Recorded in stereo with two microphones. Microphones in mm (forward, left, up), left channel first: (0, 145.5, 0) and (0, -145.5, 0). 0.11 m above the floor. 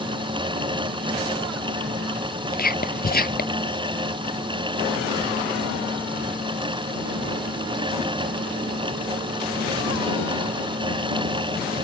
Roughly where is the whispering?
Left.